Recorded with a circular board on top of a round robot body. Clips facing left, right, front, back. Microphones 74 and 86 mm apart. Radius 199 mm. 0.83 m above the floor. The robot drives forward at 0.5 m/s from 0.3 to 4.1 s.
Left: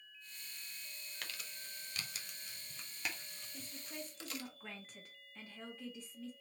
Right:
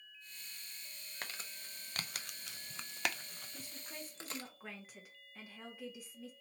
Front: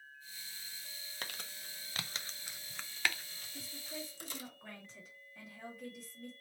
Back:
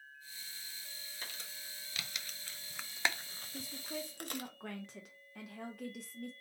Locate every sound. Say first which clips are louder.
1.2 s crumpling: right 3 dB, front 4 dB; 30° right, 0.9 m; by 4.5 s 150° right, 0.8 m
3.5 s a woman speaking: left 2 dB, back 4 dB; 170° right, 0.8 m